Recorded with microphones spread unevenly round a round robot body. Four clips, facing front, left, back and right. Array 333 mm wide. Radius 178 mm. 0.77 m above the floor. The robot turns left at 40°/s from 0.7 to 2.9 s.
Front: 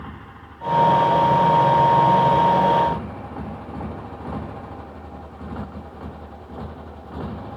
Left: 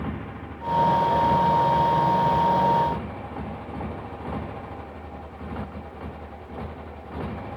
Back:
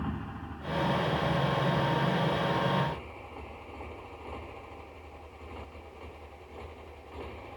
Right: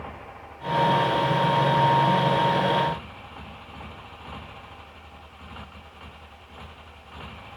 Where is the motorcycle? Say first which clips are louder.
Left 6 dB, back 1 dB; 115° left; by 7.6 s 35° left.